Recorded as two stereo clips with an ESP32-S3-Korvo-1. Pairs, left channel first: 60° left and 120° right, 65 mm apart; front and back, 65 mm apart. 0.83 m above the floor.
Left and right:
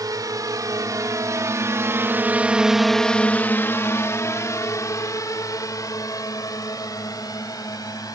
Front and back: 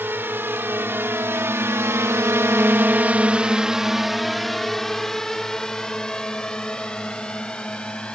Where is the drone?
125° right; by 8.2 s 75° left.